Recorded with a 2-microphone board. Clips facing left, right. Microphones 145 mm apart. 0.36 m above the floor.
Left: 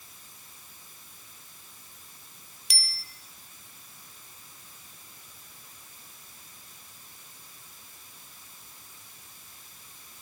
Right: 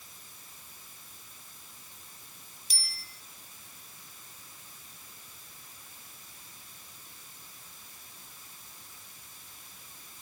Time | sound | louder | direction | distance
2.7 | a bicycle bell | left 5 dB | 75° left (ahead or behind) | 2.5 m